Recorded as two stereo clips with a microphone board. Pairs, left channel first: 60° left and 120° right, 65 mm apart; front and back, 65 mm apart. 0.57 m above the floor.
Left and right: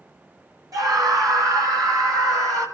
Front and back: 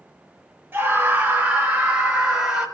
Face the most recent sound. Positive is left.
turn(degrees=-100)